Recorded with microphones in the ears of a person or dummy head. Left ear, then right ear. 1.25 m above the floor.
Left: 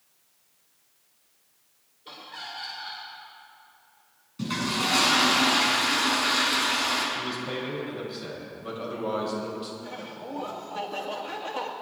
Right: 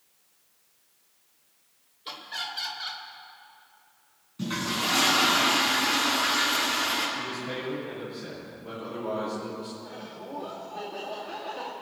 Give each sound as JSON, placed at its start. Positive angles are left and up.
{"t": 2.0, "sound": "laughter", "side_deg": -35, "distance_m": 2.5}
{"t": 4.4, "sound": "a toilet flushing", "side_deg": 20, "distance_m": 6.0}
{"t": 7.2, "sound": "a man speaking", "side_deg": 50, "distance_m": 6.5}
{"t": 9.8, "sound": "laughter", "side_deg": 65, "distance_m": 2.5}